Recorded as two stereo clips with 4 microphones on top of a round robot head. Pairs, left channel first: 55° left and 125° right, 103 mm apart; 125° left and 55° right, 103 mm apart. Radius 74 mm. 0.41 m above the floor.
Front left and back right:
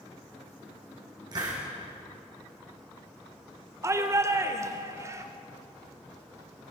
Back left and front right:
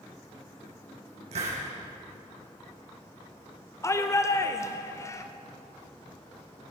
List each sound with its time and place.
1.3 s a hiss: 75° right, 6 m
3.8 s a shout: straight behind, 1.3 m